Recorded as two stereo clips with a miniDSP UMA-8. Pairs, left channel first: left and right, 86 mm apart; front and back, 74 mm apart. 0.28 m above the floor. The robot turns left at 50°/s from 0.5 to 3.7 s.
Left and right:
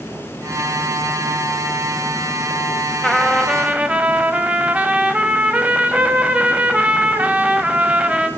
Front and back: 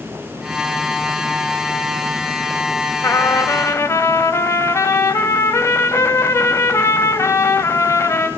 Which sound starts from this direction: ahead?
A trumpet, at 3.0 s.